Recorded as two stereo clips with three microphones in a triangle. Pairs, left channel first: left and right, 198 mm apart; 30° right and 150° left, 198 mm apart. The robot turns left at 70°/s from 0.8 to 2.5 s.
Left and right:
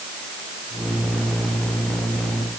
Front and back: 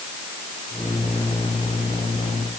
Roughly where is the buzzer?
No buzzer in this recording.